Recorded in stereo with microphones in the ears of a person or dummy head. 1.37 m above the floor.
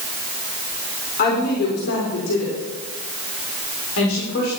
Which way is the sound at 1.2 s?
45° left (ahead or behind).